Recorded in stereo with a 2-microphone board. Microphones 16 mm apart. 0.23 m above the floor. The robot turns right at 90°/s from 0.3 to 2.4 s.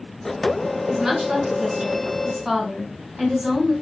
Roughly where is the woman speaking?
Behind right.